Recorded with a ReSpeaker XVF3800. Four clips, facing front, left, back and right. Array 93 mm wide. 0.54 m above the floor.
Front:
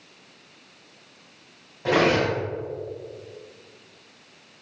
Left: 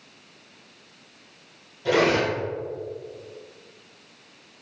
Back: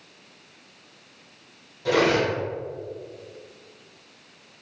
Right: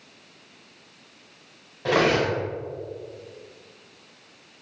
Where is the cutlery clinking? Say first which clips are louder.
Even, even; 50° right, 1.7 m.